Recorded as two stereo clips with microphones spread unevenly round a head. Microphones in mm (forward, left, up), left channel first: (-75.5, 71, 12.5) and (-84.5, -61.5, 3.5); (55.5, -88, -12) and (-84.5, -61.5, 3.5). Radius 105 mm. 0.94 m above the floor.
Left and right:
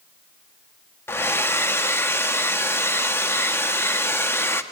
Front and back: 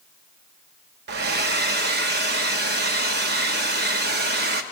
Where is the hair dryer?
160° left, 1.4 m.